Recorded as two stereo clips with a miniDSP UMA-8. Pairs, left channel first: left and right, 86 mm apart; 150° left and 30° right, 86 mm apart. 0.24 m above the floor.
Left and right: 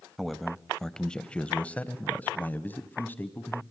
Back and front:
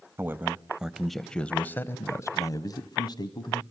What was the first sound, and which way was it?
A man speaking, straight ahead.